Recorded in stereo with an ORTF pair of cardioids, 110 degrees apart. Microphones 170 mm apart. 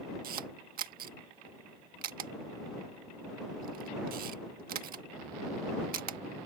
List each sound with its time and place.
0.2 s a camera shutter: 60° right